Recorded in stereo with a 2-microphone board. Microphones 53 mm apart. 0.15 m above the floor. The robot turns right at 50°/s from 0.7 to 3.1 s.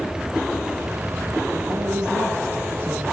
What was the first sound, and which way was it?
A man speaking, 90° right.